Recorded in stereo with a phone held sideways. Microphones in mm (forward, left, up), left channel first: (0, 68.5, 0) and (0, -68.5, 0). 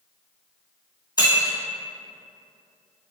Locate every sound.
1.2 s breaking glass: 30° left (ahead or behind), 1.6 m